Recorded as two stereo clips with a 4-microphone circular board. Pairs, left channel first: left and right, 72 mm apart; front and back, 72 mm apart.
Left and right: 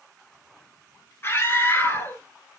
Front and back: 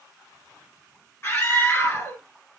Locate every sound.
1.2 s a scream: 50° left, 2 m